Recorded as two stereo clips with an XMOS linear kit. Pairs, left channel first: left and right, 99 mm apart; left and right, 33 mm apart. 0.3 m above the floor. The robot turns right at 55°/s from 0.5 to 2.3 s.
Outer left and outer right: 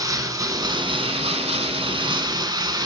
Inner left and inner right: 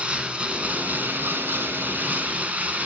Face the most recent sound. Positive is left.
turn(degrees=-45)